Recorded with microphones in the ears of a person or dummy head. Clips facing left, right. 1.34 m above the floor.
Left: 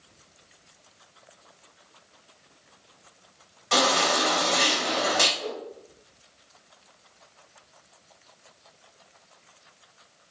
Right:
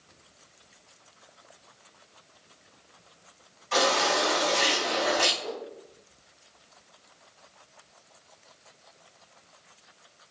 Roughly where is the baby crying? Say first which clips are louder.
Left 1 dB; left.